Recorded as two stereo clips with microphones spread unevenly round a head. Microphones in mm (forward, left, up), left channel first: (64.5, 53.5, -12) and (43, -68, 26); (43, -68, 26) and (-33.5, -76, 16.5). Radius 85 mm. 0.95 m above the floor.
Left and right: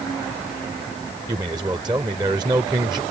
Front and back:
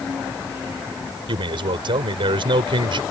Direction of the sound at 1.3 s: 170° right.